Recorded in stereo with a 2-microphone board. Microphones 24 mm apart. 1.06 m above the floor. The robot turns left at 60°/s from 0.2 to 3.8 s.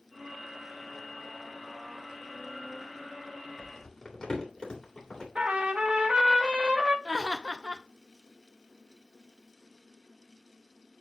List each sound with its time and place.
3.6 s crumpling: 25° left (ahead or behind), 3 m; by 5.2 s 40° left (ahead or behind), 3 m
5.3 s a trumpet: 55° right (ahead or behind), 1.5 m
7.0 s laughter: 35° right (ahead or behind), 0.7 m